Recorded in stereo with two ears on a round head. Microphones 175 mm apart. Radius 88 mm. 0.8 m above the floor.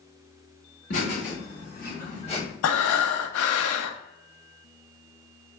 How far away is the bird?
I don't hear a bird.